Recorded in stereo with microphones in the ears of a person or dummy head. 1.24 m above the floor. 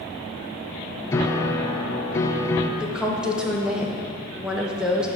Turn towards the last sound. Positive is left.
turn(degrees=-5)  # may be behind; listen again after turning